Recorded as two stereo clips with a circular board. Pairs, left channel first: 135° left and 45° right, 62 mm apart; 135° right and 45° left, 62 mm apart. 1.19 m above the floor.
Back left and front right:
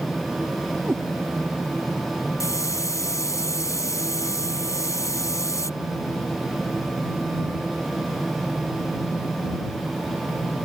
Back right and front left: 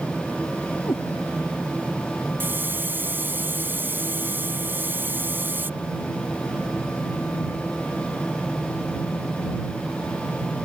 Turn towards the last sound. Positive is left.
turn(degrees=100)